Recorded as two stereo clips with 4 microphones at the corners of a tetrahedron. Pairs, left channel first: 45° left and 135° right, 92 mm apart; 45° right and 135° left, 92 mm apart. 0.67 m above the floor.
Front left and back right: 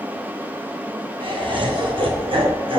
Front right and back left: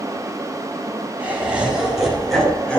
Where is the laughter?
150° right, 4 m; by 2.8 s 120° right, 3 m.